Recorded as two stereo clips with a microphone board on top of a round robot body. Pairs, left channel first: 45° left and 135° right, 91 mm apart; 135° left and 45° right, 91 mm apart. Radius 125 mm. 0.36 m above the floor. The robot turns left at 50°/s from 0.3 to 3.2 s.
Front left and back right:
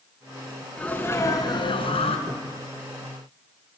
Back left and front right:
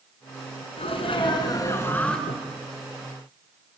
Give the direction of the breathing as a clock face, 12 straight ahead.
6 o'clock.